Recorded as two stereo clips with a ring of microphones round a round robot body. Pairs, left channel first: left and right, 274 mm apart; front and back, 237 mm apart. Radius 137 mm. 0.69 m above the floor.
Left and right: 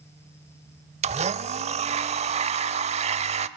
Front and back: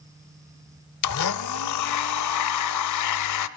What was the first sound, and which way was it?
A blender, 20° right.